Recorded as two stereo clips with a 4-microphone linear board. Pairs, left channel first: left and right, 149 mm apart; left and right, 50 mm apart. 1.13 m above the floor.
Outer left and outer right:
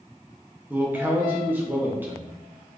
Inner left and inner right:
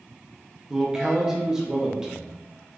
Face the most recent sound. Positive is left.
turn(degrees=-10)  # may be behind; listen again after turning